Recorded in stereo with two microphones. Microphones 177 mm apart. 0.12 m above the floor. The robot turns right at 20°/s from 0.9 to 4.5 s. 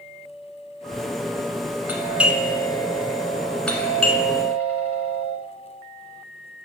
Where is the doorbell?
10° right (ahead or behind), 1.5 m; by 5.3 s 10° left (ahead or behind), 1.5 m.